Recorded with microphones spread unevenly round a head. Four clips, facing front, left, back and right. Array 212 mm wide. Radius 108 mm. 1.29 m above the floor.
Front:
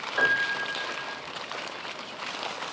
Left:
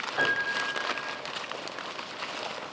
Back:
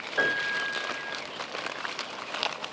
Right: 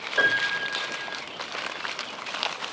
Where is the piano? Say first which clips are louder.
Right 4 dB, front 2 dB; 115° right, 1.7 m.